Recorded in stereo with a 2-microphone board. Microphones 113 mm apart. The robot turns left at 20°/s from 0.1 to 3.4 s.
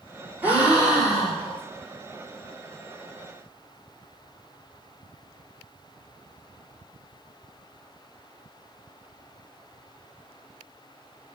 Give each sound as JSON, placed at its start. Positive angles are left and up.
{"t": 0.4, "sound": "a gasp", "side_deg": -15, "distance_m": 1.2}